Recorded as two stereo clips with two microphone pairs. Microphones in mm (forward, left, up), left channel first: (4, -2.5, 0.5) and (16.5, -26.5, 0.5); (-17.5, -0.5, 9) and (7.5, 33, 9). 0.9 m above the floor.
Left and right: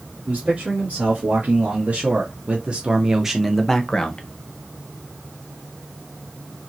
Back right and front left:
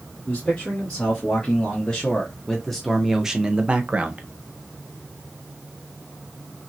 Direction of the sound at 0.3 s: 65° right.